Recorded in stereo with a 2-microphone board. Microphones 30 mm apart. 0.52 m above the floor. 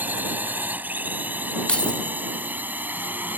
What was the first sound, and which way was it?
A drone, 70° right (ahead or behind).